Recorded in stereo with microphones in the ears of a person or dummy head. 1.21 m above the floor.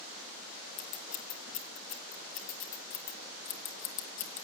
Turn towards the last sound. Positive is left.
turn(degrees=40)  # may be behind; listen again after turning